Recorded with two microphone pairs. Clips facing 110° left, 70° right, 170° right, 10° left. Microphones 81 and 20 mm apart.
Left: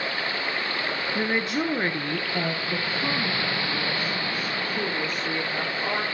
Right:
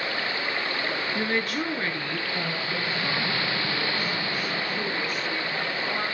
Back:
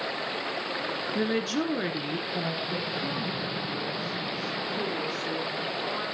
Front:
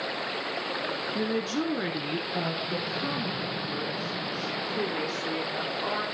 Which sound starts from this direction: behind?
A woman speaking, at 1.1 s.